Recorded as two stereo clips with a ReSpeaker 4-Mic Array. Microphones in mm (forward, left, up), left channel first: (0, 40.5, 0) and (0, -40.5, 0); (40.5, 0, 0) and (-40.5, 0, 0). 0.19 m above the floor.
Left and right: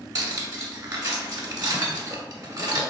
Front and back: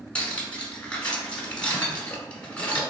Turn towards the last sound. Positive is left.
turn(degrees=-75)